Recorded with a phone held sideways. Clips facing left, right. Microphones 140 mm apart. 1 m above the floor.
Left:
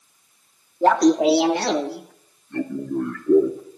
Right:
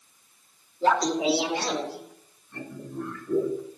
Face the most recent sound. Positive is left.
turn(degrees=60)  # may be behind; listen again after turning